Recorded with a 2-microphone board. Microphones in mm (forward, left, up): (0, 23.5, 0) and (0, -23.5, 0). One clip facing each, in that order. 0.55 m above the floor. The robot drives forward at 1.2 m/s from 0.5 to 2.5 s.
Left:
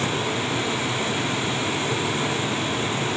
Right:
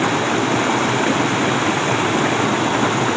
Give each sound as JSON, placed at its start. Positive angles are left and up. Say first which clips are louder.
{"t": 0.0, "sound": "running water", "louder": "right 7 dB", "side_deg": -75}